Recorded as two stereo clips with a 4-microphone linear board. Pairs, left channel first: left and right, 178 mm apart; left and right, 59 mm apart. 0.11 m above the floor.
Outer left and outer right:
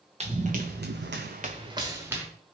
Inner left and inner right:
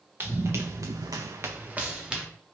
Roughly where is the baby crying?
No baby crying in this recording.